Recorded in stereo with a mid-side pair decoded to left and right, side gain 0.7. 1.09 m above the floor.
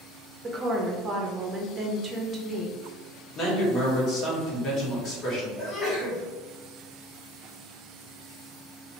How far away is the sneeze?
About 1.8 m.